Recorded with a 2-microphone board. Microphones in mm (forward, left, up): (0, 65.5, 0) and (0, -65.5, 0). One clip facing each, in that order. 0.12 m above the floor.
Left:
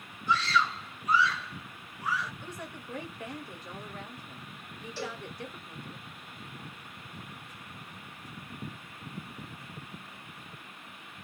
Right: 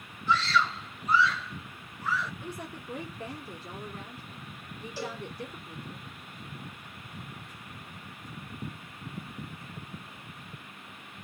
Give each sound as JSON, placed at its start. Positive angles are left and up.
{"t": 0.3, "sound": "a scream", "side_deg": 15, "distance_m": 1.7}
{"t": 2.4, "sound": "a woman speaking", "side_deg": -35, "distance_m": 1.8}
{"t": 5.0, "sound": "a cowbell", "side_deg": -15, "distance_m": 1.6}